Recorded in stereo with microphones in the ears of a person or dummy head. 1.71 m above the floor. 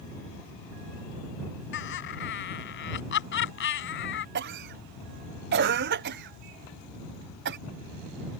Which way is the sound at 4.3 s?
50° right (ahead or behind).